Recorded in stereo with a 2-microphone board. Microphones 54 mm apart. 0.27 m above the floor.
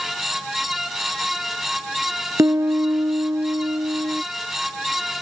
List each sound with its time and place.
2.4 s a piano: 75° right (ahead or behind)